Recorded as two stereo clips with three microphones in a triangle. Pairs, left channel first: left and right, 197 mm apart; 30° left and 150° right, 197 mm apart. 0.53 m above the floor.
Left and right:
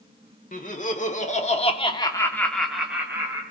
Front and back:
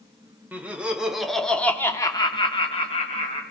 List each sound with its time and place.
0.5 s laughter: 130° left, 1.8 m; by 3.4 s 20° right, 1.6 m